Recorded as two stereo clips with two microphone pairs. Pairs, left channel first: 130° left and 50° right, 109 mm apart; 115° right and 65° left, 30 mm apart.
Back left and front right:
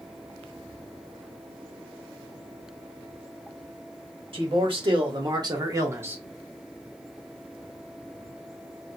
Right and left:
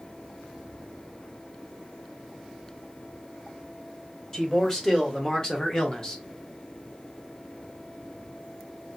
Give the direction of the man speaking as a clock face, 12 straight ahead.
2 o'clock.